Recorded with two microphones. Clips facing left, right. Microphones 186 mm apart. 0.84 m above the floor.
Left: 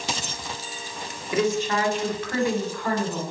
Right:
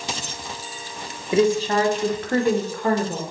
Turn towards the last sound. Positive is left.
turn(degrees=-60)  # may be behind; listen again after turning